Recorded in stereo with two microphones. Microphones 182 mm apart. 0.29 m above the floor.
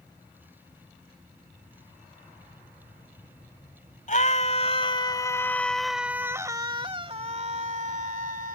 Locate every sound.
4.1 s a scream: 45° left (ahead or behind); by 8.6 s 55° right (ahead or behind)